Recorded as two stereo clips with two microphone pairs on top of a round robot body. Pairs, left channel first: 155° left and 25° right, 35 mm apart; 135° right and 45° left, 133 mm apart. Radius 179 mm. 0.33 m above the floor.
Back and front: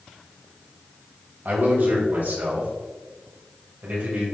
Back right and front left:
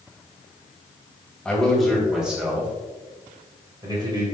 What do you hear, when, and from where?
1.4 s a man speaking: 50° right, 3 m; by 4.2 s 5° right, 3 m